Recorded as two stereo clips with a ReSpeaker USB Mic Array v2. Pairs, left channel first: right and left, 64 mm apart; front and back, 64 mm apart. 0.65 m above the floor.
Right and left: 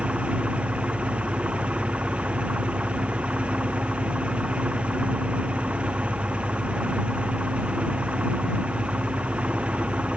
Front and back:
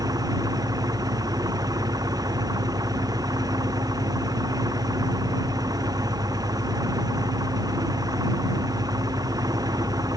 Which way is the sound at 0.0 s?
165° left.